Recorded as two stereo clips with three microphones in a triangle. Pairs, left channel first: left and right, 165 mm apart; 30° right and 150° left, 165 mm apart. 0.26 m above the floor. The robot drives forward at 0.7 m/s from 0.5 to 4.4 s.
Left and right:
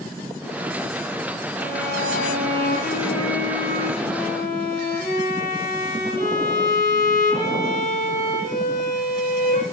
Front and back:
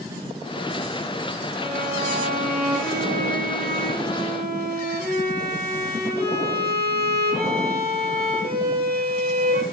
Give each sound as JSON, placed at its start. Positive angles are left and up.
{"t": 1.6, "sound": "a violin", "azimuth_deg": 115, "distance_m": 7.5}